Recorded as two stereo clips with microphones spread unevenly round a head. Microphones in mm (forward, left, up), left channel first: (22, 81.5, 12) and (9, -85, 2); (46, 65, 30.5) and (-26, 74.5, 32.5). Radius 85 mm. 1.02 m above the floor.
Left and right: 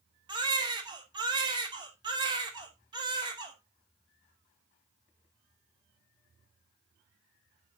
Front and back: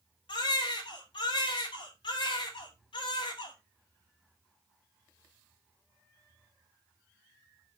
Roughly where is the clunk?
No clunk in this recording.